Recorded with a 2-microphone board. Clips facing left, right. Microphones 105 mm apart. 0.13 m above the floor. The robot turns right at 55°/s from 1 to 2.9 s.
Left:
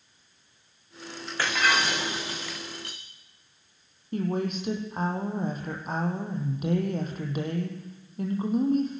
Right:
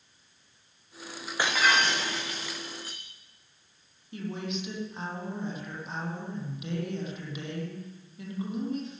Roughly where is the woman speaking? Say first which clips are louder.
Left 7 dB; left.